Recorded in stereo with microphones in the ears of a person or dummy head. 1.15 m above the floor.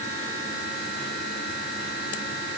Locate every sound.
Only background noise.